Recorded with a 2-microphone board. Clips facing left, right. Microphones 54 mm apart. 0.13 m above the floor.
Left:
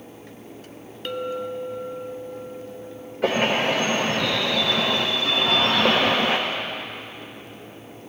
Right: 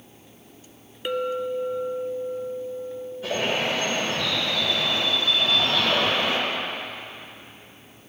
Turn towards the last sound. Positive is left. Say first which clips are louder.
# left 5 dB
turn(degrees=65)  # may be behind; listen again after turning